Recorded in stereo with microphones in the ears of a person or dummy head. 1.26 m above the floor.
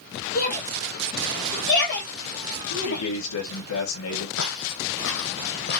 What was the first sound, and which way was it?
A shout, 45° left (ahead or behind).